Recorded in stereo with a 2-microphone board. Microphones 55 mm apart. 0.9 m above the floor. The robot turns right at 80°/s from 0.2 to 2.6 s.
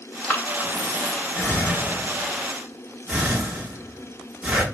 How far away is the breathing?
About 1.2 m.